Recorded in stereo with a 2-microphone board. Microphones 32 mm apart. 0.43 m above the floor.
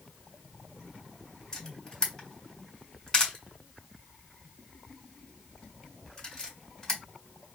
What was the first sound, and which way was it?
A camera shutter, 20° left (ahead or behind).